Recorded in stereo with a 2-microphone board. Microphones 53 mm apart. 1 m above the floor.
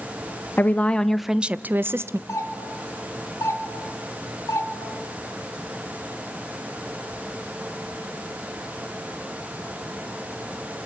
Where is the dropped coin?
I don't hear a dropped coin.